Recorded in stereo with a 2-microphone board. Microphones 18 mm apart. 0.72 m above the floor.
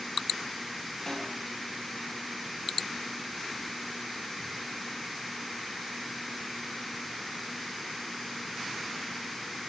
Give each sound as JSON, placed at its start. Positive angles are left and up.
{"t": 1.1, "sound": "a snare drum", "side_deg": 30, "distance_m": 8.5}